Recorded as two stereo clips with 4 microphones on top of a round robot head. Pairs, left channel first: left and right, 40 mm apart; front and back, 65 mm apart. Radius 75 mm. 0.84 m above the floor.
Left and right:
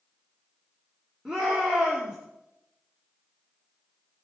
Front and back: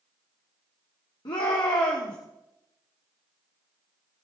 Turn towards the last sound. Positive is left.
turn(degrees=-15)